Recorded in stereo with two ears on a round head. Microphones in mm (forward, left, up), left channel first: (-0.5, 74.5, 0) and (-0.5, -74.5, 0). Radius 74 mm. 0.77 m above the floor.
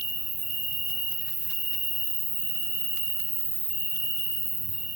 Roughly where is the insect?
Right.